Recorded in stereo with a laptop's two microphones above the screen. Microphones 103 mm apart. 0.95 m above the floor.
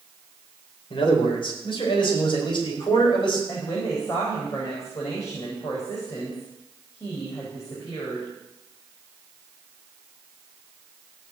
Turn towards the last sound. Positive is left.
turn(degrees=35)  # may be behind; listen again after turning